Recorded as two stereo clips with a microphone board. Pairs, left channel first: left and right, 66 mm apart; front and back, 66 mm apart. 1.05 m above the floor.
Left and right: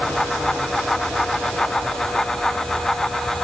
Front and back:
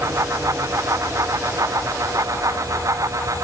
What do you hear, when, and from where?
Only background noise.